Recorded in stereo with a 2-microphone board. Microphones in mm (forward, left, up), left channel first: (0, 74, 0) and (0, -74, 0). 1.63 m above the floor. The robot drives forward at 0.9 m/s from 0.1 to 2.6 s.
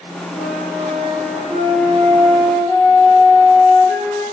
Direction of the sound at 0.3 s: 80° right.